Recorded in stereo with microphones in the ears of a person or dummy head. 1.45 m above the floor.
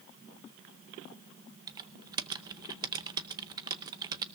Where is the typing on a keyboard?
20° right (ahead or behind), 0.6 m.